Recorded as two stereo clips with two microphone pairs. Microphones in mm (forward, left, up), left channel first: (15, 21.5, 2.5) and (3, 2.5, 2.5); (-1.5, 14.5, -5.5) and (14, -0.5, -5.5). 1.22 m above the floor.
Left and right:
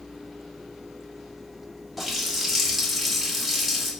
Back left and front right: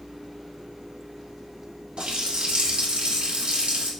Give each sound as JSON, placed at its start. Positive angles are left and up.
{"t": 2.0, "sound": "a running tap", "azimuth_deg": -30, "distance_m": 0.9}